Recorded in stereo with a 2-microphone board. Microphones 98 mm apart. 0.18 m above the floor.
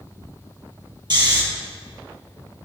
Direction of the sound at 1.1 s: 50° right (ahead or behind).